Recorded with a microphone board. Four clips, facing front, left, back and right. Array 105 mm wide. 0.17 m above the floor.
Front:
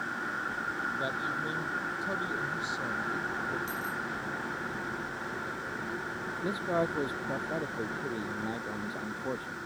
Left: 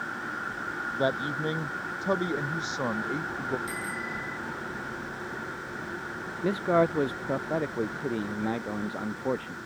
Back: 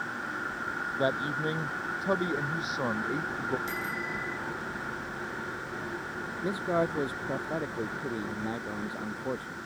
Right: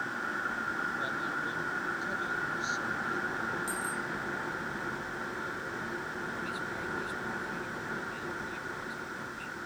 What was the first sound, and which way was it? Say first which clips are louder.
A man speaking: left 7 dB, back 4 dB; 125° left.